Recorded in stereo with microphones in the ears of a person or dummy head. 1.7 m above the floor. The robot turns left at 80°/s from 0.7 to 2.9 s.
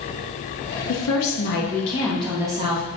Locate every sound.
0.9 s a woman speaking: 110° left, 0.9 m; by 2.8 s 45° right, 0.9 m